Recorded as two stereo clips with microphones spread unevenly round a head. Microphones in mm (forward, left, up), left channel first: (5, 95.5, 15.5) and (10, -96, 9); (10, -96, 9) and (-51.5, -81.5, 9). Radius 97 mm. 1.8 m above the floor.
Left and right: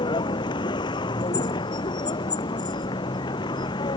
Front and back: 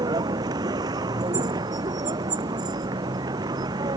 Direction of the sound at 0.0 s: 160° left.